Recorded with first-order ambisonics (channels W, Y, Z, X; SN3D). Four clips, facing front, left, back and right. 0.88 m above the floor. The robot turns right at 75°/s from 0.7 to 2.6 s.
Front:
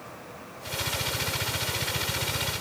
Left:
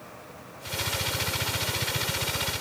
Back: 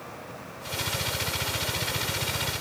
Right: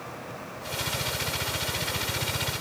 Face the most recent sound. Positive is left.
No sound to turn to.